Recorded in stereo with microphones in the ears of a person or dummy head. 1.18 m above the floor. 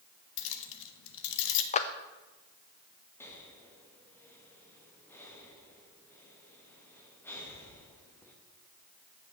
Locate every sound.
0.4 s keys jangling: 70° left (ahead or behind), 0.8 m
1.7 s a clap: 40° left (ahead or behind), 0.5 m
3.2 s breathing: 15° left (ahead or behind), 1.2 m